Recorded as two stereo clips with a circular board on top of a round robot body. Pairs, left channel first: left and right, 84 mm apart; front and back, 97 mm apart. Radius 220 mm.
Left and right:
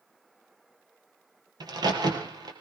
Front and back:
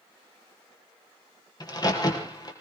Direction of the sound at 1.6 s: 50° right.